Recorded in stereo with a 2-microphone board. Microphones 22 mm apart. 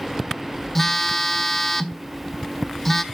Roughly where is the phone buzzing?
Centre.